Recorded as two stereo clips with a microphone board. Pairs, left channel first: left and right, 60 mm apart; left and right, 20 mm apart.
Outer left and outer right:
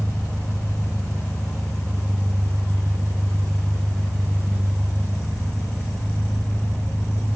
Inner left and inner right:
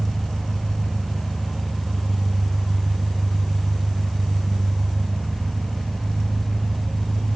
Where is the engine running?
70° left (ahead or behind), 7.5 m.